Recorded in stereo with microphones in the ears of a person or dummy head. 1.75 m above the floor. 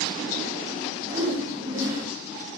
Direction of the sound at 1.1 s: 20° right (ahead or behind).